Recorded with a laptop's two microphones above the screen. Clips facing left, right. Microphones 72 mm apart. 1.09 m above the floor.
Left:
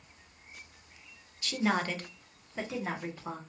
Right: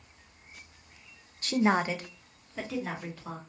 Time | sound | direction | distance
1.4 | a woman speaking | 45° right (ahead or behind) | 0.5 m